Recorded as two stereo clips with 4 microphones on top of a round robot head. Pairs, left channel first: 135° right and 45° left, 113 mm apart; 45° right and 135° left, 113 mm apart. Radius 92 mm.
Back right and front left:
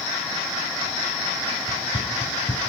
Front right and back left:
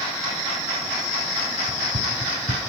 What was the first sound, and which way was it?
Running footsteps, 160° left.